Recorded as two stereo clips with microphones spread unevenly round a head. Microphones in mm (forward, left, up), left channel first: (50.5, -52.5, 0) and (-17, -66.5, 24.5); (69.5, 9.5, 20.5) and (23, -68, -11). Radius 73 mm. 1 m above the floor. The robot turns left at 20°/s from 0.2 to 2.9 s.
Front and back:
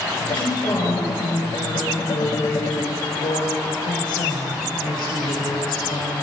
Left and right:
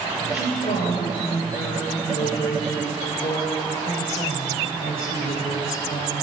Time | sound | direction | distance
0.2 | a woman speaking | 90° left | 5 m